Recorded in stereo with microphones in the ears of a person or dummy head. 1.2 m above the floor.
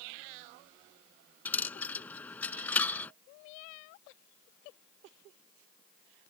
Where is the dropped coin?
5° left (ahead or behind).